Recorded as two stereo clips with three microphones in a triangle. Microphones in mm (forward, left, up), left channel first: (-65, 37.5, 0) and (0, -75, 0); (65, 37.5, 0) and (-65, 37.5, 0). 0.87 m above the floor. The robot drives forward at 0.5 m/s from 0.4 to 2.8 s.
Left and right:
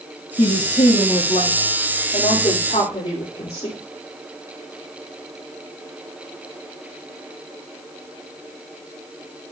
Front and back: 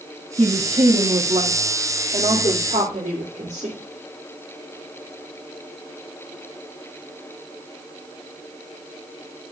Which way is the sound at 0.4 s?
135° left.